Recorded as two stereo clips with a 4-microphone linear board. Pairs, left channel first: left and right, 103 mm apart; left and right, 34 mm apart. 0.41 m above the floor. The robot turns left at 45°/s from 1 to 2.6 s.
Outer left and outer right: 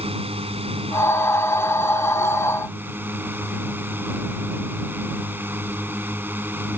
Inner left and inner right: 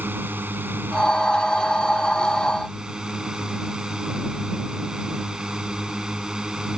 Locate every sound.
0.0 s a drone: 90° right; by 6.8 s 160° right